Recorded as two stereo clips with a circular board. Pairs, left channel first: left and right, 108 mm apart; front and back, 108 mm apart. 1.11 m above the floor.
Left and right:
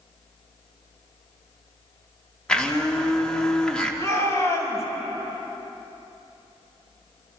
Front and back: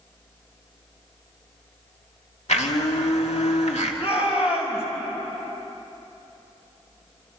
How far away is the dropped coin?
No dropped coin in this recording.